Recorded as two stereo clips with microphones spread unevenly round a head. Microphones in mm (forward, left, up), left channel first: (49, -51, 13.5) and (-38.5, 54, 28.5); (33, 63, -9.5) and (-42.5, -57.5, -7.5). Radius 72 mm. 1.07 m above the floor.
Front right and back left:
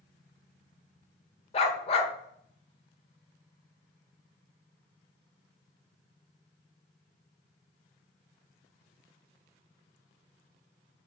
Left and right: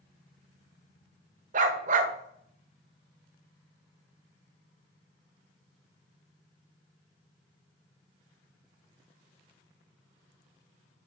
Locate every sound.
1.5 s a dog barking: 100° right, 1.1 m